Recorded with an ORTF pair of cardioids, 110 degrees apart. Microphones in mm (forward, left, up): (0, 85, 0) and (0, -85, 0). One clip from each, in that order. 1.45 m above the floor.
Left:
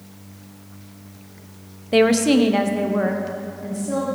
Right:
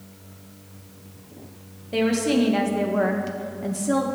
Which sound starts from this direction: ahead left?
A woman speaking, at 1.9 s.